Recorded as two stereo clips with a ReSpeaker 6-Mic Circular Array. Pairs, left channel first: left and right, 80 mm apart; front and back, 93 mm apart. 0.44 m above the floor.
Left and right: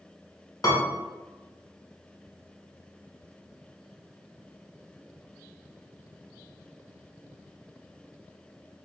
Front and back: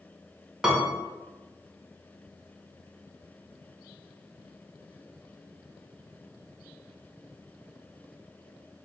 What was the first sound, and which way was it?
A piano, 100° left.